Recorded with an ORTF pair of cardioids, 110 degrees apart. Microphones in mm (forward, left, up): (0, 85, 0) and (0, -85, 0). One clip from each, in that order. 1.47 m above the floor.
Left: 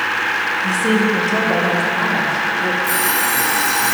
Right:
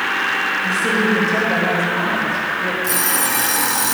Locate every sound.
0.6 s a woman speaking: 25° left, 2 m
2.8 s an alarm clock: 20° right, 1.7 m